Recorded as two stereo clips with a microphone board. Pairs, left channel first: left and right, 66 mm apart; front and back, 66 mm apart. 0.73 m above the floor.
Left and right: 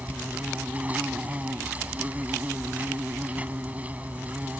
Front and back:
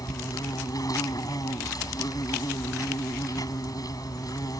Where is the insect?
20° right.